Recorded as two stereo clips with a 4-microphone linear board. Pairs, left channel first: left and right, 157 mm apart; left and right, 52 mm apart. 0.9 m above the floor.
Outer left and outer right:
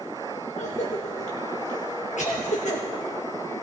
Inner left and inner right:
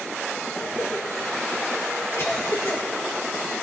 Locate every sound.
0.6 s a cough: 50° left (ahead or behind), 1.3 m